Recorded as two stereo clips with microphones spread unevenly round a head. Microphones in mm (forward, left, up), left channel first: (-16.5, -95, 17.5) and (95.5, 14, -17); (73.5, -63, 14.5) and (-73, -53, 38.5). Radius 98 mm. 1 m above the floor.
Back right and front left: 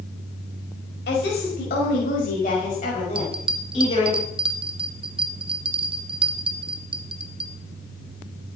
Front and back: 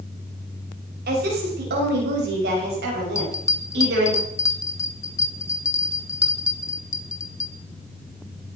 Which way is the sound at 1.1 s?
Straight behind.